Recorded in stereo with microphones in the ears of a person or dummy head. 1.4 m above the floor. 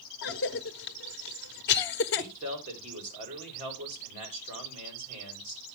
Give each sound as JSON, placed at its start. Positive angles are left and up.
{"t": 0.2, "sound": "a cough", "side_deg": 55, "distance_m": 0.8}
{"t": 2.1, "sound": "a man speaking", "side_deg": -40, "distance_m": 4.5}